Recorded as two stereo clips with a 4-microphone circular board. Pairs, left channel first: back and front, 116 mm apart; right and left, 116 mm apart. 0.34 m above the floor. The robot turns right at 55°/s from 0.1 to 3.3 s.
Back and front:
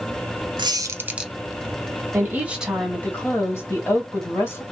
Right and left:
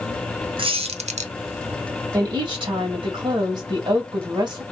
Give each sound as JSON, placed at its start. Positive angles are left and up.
{"t": 0.6, "sound": "a squeak", "azimuth_deg": 45, "distance_m": 0.5}
{"t": 2.1, "sound": "a woman speaking", "azimuth_deg": 55, "distance_m": 1.5}